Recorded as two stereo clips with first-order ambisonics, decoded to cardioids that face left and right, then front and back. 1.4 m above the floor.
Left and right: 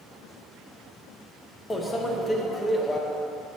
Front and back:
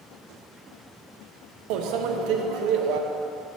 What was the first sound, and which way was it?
A microwave, 170° left.